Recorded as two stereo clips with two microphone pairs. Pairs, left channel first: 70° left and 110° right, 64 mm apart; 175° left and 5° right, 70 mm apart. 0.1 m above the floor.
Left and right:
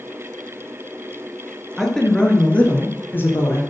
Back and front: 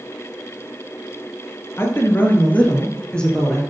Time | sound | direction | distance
1.8 | a woman speaking | 150° left | 2 m